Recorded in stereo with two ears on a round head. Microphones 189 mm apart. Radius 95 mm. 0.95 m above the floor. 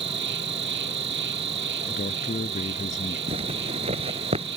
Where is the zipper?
30° right (ahead or behind).